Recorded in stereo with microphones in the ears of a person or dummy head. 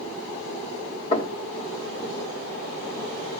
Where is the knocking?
35° left (ahead or behind), 2.5 m.